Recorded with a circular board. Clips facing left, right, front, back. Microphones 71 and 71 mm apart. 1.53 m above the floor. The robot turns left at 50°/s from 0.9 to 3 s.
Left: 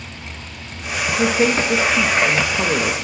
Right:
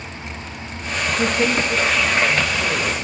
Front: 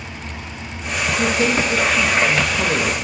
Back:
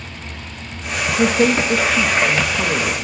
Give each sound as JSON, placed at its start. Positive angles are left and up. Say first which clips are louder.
{"t": 1.2, "sound": "a woman speaking", "louder": "left 3 dB, back 4 dB", "azimuth_deg": 170, "distance_m": 1.9}